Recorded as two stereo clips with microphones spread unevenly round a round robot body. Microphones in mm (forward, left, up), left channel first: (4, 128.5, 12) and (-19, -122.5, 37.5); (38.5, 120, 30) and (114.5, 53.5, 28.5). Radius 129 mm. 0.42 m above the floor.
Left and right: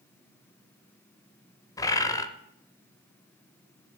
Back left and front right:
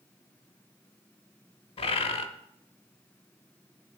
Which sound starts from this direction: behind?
A bird, at 1.8 s.